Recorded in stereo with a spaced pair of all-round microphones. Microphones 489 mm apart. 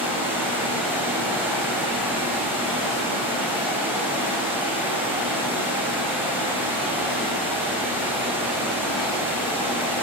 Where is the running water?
5° right (ahead or behind), 6 m.